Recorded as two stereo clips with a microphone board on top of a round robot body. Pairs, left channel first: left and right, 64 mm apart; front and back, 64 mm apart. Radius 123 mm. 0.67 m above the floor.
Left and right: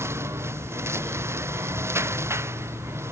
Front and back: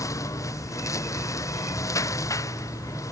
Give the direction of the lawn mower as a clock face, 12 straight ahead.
1 o'clock.